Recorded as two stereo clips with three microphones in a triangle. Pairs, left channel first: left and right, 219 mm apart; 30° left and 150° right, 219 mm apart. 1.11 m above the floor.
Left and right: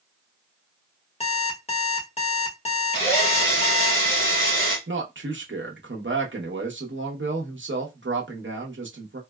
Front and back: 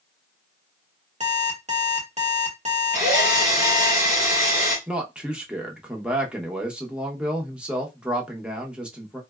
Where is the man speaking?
65° right, 0.8 m.